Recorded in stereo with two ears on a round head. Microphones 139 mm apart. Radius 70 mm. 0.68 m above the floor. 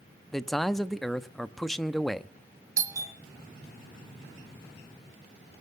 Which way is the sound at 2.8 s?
20° right (ahead or behind).